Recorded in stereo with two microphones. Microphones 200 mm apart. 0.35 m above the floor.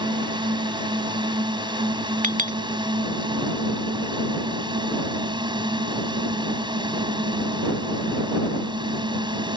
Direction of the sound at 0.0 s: 25° right (ahead or behind).